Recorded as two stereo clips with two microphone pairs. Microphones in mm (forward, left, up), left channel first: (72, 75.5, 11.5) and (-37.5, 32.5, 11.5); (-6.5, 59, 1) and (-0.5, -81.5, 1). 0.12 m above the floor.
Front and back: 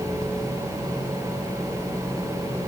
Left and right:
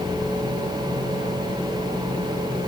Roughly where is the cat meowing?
I don't hear a cat meowing.